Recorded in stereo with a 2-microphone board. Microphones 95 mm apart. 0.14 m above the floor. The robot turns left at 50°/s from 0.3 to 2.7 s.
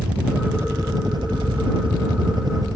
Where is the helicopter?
15° right; by 2.8 s 135° right.